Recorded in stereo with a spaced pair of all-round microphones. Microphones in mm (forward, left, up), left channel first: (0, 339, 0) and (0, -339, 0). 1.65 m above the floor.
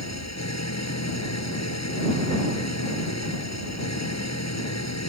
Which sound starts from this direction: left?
An engine running, at 0.0 s.